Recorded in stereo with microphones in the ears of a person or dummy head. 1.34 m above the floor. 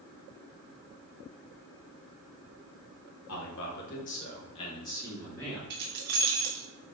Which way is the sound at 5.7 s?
50° right (ahead or behind).